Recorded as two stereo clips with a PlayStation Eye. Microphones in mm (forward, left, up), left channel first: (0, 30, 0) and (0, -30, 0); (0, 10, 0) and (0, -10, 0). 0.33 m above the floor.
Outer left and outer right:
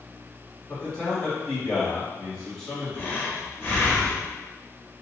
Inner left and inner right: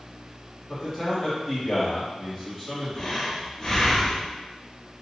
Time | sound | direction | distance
0.7 | a man speaking | 10° left (ahead or behind) | 1.8 m
2.9 | breathing | 30° left (ahead or behind) | 0.9 m